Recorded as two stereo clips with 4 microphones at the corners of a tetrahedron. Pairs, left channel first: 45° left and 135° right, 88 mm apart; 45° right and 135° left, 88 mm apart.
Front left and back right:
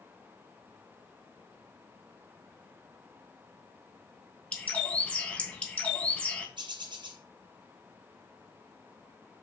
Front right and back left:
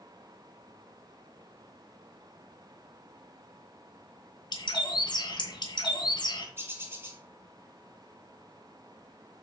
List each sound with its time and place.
4.5 s a bird: 30° right, 2.5 m
6.6 s a bird: 165° right, 2 m